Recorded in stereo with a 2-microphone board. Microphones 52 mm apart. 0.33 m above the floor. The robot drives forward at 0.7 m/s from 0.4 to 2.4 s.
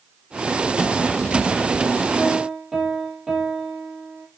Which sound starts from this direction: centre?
A piano, at 2.2 s.